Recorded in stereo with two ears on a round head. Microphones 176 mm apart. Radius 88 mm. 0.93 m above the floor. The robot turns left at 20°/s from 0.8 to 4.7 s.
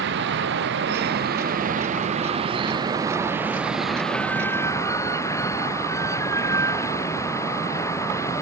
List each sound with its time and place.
0.0 s running water: 115° right; by 8.4 s 165° left